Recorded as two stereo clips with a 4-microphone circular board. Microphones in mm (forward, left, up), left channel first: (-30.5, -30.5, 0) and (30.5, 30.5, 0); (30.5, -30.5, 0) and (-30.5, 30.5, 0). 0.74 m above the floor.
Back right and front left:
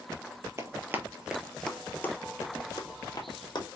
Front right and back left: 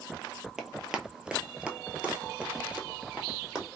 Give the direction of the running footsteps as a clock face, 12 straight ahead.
10 o'clock.